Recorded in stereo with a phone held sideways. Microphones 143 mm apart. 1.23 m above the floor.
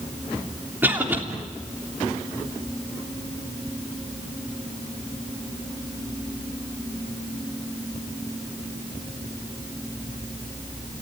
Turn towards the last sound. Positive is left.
turn(degrees=-15)  # may be behind; listen again after turning